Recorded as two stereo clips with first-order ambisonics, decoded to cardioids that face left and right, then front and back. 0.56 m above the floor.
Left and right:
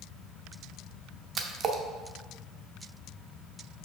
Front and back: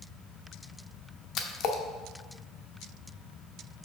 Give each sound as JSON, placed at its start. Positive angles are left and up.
{"t": 1.4, "sound": "a splash", "azimuth_deg": -35, "distance_m": 0.7}